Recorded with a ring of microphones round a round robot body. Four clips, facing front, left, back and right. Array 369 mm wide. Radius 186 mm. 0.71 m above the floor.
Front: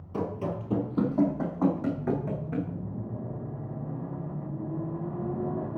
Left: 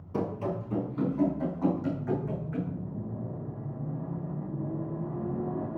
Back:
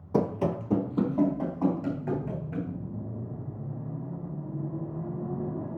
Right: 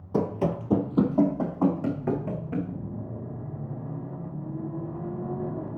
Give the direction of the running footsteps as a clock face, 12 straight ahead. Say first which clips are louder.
Right 5 dB, back 5 dB; 5 o'clock.